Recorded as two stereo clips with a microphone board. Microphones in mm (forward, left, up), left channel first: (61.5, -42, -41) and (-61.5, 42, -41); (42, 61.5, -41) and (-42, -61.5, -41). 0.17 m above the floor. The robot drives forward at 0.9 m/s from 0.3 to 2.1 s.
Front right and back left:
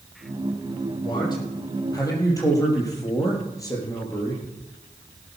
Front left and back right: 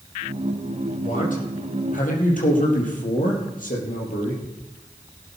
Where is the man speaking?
25° left, 5 m; by 4.4 s 30° left, 4.5 m.